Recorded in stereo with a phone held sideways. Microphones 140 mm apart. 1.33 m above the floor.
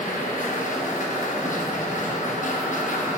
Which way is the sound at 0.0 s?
65° left (ahead or behind).